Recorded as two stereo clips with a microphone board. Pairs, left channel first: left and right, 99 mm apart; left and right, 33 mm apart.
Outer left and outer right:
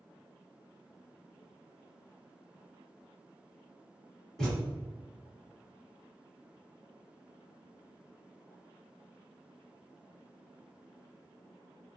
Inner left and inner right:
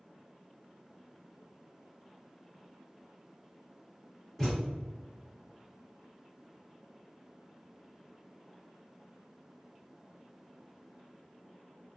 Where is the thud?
5° left (ahead or behind), 1.5 m.